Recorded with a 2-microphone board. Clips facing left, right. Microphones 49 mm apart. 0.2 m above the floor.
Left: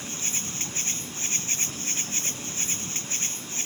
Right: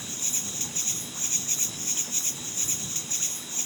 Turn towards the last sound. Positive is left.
turn(degrees=45)  # may be behind; listen again after turning